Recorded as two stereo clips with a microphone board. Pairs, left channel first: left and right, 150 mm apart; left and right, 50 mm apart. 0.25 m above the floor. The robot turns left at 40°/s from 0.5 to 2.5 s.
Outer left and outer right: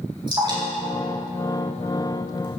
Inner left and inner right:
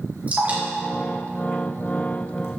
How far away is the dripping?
About 3.5 m.